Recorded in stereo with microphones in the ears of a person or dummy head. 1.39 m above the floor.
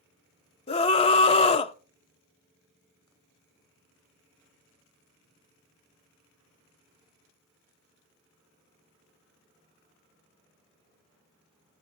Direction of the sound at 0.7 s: 35° left (ahead or behind).